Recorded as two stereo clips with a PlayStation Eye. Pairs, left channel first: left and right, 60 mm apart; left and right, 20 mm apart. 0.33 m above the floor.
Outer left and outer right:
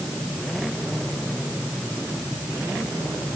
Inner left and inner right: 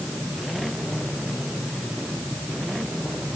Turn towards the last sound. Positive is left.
No sound to turn to.